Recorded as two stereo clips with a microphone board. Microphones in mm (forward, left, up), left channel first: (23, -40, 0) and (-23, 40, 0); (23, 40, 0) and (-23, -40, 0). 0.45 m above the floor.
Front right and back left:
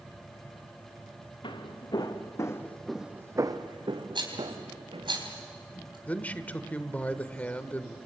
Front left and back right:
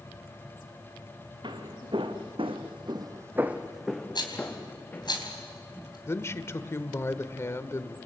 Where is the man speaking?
10° left, 1.1 m.